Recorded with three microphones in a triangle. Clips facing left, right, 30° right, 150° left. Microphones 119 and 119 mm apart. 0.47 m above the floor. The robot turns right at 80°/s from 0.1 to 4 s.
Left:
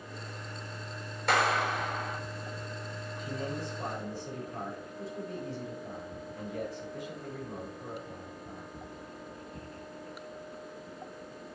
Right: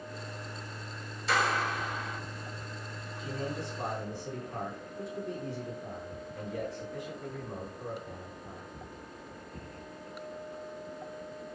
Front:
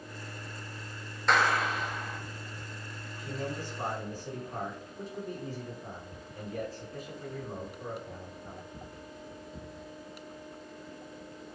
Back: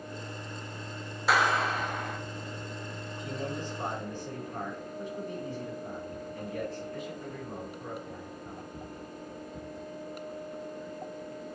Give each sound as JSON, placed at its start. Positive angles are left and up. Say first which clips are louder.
{"t": 1.3, "sound": "a clap", "louder": "left 2 dB, back 1 dB", "azimuth_deg": 65, "distance_m": 2.0}
{"t": 3.2, "sound": "a man speaking", "louder": "even, back 1 dB", "azimuth_deg": -145, "distance_m": 4.5}